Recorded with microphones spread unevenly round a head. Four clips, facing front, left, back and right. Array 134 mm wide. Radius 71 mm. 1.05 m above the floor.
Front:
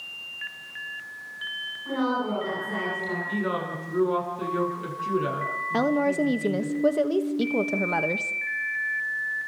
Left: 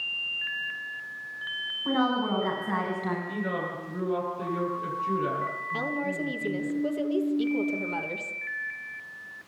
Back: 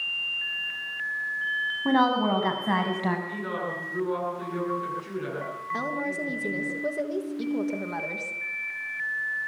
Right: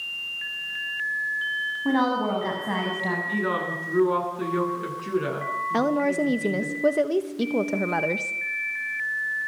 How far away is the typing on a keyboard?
I don't hear typing on a keyboard.